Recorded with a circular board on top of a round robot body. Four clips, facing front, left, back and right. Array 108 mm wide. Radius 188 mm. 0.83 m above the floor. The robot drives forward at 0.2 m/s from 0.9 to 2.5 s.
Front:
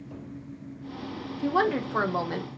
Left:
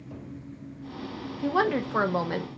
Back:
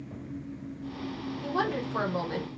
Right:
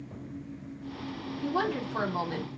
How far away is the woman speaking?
About 0.9 m.